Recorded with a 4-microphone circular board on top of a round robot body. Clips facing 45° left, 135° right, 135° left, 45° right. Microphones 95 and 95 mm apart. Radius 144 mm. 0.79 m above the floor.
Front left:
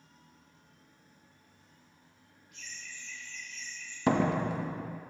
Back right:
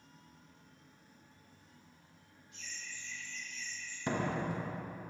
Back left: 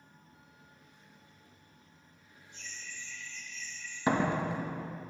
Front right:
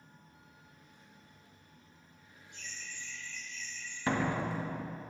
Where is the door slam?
60° left, 0.7 m.